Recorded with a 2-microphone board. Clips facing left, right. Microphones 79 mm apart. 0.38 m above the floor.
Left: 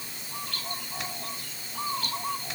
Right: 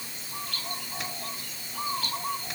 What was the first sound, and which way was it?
Only background noise.